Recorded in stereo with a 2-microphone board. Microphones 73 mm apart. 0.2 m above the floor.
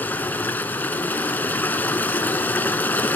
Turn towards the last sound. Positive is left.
turn(degrees=25)  # may be behind; listen again after turning